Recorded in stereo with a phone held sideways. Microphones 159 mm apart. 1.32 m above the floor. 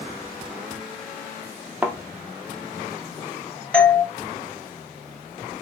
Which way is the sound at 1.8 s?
10° right (ahead or behind).